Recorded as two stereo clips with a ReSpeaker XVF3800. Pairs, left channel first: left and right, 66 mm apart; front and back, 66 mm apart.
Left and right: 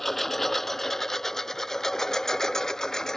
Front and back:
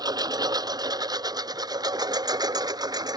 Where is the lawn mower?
Straight behind; by 3.2 s 175° left.